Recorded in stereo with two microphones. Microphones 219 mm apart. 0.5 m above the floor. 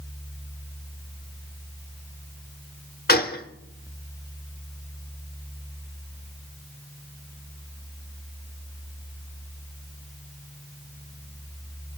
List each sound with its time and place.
3.1 s a gunshot: 50° left (ahead or behind), 1.0 m